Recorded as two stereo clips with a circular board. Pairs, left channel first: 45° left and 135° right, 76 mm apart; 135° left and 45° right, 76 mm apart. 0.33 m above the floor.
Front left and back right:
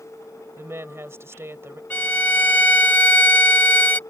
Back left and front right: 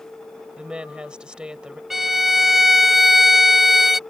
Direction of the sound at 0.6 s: 115° right.